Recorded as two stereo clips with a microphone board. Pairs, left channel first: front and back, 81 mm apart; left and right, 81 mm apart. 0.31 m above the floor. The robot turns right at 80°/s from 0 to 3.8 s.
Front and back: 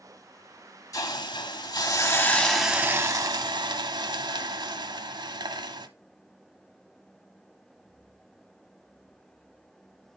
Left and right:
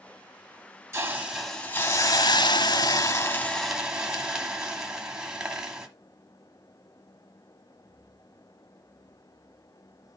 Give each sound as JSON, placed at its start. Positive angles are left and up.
{"t": 0.9, "sound": "a hiss", "azimuth_deg": -40, "distance_m": 1.1}